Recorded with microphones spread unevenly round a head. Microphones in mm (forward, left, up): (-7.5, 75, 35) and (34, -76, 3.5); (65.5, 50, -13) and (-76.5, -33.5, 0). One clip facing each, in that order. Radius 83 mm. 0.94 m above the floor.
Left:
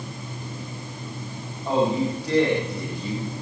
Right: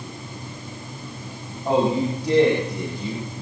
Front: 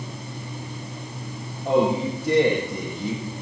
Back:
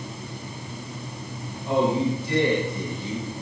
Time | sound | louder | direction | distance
1.6 | a man speaking | right 2 dB, front 1 dB | 5° right | 6.5 m